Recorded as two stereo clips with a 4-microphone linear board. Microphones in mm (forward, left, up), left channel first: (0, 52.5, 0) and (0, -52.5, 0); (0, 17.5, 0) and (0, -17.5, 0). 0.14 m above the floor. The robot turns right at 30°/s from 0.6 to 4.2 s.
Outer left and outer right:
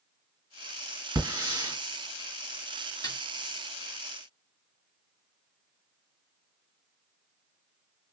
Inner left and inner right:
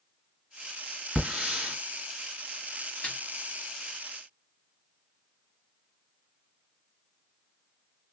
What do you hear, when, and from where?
1.1 s a hiss: 30° right (ahead or behind), 2 m; by 1.8 s 20° right (ahead or behind), 2 m
3.0 s a snare drum: 35° left (ahead or behind), 2.0 m